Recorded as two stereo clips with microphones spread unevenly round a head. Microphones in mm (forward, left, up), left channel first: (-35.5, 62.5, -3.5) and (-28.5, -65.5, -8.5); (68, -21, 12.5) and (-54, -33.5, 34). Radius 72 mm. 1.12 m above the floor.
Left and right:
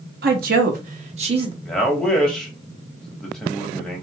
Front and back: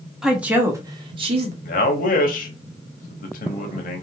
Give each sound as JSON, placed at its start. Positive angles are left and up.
{"t": 0.2, "sound": "a woman speaking", "azimuth_deg": -85, "distance_m": 1.1}
{"t": 1.6, "sound": "a man speaking", "azimuth_deg": 5, "distance_m": 0.9}